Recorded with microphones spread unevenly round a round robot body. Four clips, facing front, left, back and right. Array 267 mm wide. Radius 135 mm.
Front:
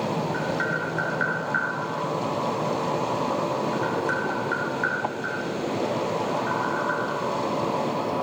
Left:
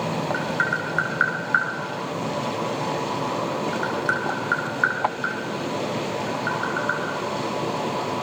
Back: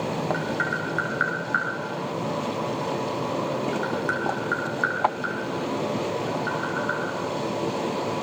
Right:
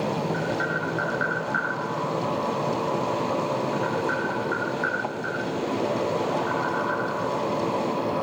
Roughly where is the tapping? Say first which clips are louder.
Left 2 dB, front 1 dB; left.